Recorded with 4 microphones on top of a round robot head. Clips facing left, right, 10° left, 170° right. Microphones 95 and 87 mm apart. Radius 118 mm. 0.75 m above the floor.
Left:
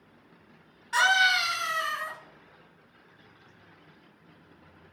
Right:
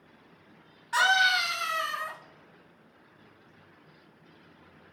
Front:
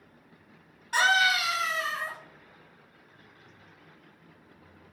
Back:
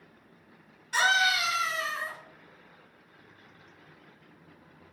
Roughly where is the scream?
Ahead.